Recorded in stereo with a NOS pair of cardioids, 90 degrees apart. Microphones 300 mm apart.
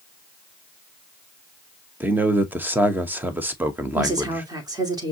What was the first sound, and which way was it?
A man speaking, 5° right.